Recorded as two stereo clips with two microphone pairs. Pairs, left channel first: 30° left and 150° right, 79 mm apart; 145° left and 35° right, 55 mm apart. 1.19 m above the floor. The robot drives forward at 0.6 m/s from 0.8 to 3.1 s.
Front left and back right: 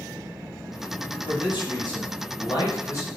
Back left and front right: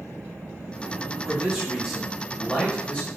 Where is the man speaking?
40° left, 1.8 m; by 3.1 s 80° left, 1.2 m.